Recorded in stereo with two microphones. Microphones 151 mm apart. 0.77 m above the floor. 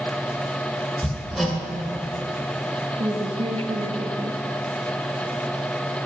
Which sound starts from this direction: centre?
Hammering, at 1.0 s.